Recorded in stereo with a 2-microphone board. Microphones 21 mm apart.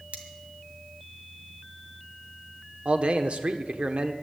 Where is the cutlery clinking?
85° right, 1.9 m.